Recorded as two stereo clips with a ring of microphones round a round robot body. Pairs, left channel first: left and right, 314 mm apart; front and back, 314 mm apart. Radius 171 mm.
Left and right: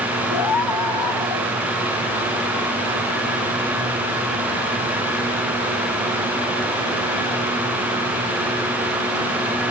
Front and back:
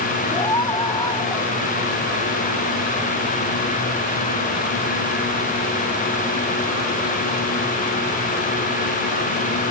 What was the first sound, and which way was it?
A scream, 80° left.